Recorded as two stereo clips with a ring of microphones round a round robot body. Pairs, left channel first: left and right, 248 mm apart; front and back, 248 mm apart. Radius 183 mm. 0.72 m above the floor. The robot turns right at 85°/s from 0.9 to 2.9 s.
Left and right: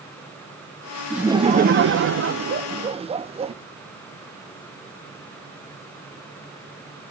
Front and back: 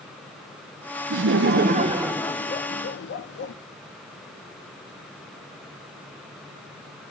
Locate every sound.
1.1 s laughter: straight behind, 0.8 m; by 3.5 s 25° right, 0.8 m